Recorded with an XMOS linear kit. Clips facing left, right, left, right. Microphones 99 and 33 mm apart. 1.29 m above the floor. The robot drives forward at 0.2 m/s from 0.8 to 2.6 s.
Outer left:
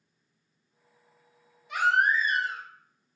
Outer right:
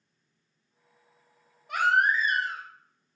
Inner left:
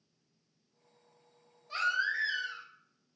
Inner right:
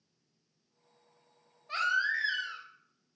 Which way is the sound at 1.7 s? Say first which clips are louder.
Even, inner right 2 dB; 55° right (ahead or behind).